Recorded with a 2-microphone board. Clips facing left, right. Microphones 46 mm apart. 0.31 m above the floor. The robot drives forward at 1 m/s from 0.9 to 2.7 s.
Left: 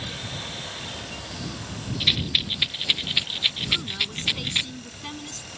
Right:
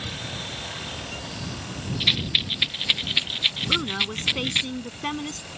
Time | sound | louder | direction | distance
2.0 | a rattle | even | 10° right (ahead or behind) | ?
3.7 | a woman speaking | right 3 dB | 35° right (ahead or behind) | ?